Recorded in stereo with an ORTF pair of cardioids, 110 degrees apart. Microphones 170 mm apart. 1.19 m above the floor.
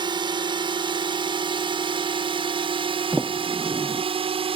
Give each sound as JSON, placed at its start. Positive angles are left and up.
{"t": 0.0, "sound": "a drone", "azimuth_deg": -25}
{"t": 3.1, "sound": "a sliding door", "azimuth_deg": -10}